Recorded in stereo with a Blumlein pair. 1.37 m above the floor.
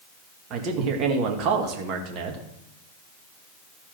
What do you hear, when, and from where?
0.5 s a man speaking: 35° right, 1.7 m